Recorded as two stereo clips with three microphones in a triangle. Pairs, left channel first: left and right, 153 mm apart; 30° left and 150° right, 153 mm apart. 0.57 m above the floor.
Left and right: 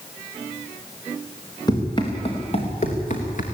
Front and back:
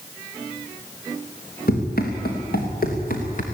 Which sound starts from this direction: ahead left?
Running footsteps, at 1.7 s.